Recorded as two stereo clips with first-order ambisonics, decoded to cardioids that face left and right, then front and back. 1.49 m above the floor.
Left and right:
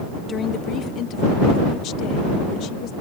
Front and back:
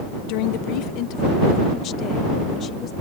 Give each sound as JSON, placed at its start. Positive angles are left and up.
{"t": 0.3, "sound": "a woman speaking", "azimuth_deg": 20}